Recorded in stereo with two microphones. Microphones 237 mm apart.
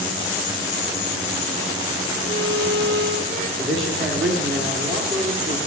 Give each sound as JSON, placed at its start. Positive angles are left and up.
{"t": 2.2, "sound": "a violin", "side_deg": -65, "distance_m": 3.0}
{"t": 3.6, "sound": "a man speaking", "side_deg": -55, "distance_m": 2.0}